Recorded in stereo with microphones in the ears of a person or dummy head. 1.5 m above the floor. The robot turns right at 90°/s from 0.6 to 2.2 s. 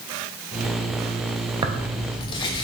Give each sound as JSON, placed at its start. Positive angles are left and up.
{"t": 1.6, "sound": "tearing paper", "azimuth_deg": -25, "distance_m": 0.5}